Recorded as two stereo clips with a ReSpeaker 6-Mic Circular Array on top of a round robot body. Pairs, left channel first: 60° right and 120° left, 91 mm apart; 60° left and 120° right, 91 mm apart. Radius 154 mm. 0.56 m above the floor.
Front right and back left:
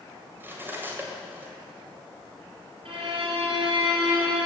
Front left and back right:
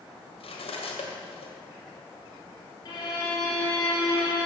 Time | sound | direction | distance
0.4 | cutlery clinking | 55° left | 2.0 m
2.9 | a violin | 105° left | 4 m